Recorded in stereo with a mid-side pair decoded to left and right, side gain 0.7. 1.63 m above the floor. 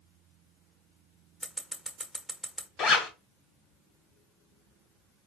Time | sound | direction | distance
1.4 | scissors | 5° left | 1.2 m
2.8 | a zipper | 45° left | 1.8 m